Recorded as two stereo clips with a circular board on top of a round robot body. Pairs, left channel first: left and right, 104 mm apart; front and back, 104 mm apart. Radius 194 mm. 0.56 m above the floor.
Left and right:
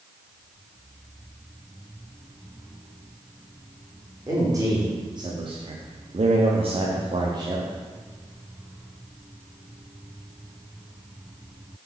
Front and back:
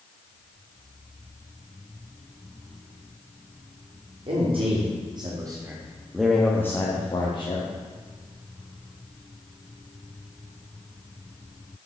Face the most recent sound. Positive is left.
turn(degrees=-35)